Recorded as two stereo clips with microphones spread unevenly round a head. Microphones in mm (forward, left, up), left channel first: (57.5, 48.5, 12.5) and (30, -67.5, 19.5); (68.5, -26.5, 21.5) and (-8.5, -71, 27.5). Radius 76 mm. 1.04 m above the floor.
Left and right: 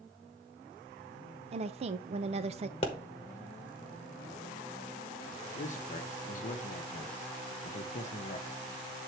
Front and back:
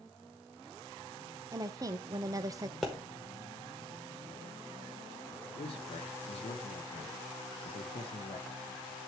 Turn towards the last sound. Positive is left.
turn(degrees=55)